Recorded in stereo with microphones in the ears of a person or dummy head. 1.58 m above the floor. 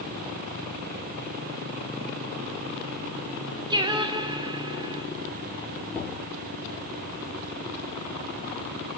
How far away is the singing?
About 0.5 m.